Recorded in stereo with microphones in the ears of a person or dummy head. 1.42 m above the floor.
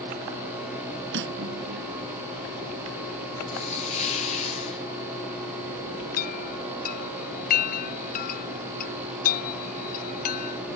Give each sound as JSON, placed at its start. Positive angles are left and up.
{"t": 1.1, "sound": "cutlery clinking", "side_deg": -70}
{"t": 3.5, "sound": "a hiss", "side_deg": 35}
{"t": 6.2, "sound": "a chime", "side_deg": 55}